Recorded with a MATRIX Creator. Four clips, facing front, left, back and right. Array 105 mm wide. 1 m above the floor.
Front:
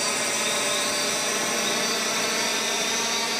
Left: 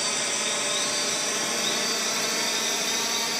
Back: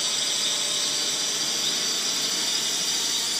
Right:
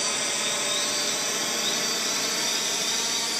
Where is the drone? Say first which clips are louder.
Even, front 8 dB; straight ahead; by 3.4 s 15° left.